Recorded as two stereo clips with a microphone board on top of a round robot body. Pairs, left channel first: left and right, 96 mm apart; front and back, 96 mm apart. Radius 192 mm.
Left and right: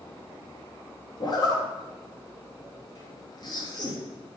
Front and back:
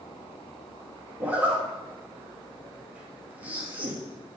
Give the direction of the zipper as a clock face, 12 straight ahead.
8 o'clock.